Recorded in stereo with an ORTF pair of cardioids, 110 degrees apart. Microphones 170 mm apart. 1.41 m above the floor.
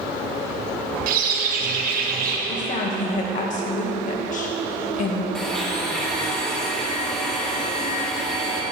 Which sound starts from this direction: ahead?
A blender, at 5.3 s.